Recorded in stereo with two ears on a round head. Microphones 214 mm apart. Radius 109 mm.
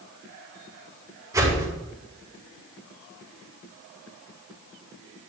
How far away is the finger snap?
I don't hear a finger snap.